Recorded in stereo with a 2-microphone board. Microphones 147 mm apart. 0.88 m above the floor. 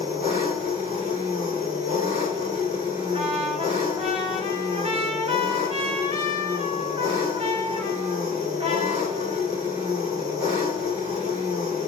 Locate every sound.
0.0 s an engine running: 40° right (ahead or behind), 2 m
3.1 s a trumpet: 45° right (ahead or behind), 0.8 m